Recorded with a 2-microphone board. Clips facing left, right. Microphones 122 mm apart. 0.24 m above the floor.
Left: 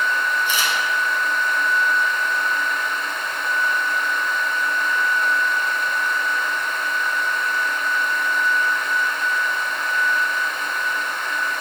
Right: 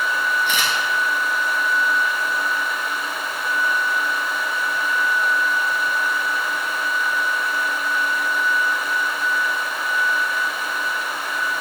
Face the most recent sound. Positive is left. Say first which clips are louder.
# right 1 dB
turn(degrees=-70)  # may be behind; listen again after turning